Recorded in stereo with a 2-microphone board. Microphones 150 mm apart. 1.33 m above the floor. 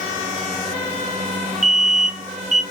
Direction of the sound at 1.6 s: 60° right (ahead or behind).